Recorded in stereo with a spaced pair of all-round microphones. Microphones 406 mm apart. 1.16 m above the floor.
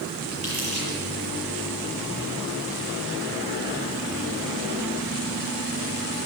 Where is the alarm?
No alarm in this recording.